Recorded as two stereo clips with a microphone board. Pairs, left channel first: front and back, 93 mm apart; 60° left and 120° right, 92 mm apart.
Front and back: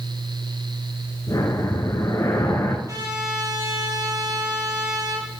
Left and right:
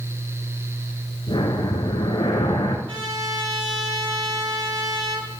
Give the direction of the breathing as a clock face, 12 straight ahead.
11 o'clock.